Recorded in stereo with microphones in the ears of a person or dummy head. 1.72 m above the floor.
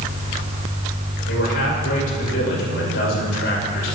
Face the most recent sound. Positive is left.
turn(degrees=70)  # may be behind; listen again after turning